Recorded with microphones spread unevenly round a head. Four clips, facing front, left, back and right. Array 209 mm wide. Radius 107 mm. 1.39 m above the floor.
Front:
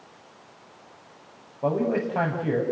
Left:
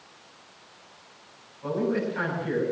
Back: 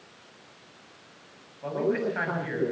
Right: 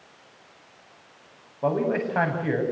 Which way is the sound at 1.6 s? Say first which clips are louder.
Right 3 dB, front 3 dB; 45° right.